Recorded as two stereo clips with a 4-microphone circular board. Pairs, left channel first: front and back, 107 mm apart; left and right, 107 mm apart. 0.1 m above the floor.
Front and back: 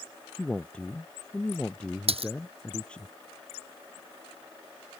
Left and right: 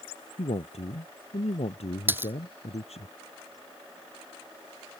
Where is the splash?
160° right.